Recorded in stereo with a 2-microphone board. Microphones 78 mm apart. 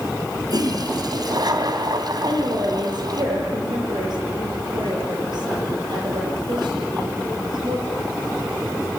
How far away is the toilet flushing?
About 2.5 m.